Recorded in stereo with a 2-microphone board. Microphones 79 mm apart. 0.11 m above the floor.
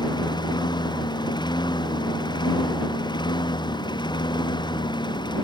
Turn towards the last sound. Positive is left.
turn(degrees=70)  # may be behind; listen again after turning